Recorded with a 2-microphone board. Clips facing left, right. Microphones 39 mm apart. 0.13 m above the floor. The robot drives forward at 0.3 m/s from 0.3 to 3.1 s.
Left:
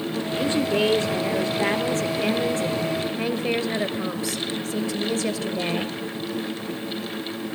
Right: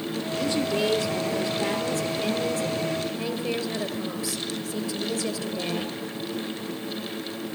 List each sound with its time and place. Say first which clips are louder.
0.4 s a woman speaking: left 3 dB; 40° left (ahead or behind), 2.5 m; by 5.9 s 50° left (ahead or behind), 2 m